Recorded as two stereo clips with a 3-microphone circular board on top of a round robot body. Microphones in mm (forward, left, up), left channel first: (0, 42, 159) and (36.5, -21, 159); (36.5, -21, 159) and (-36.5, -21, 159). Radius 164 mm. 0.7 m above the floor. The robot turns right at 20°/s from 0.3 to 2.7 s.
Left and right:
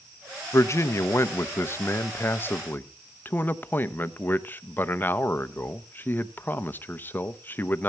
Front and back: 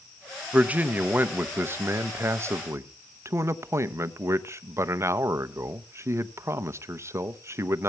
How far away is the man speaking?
About 0.9 m.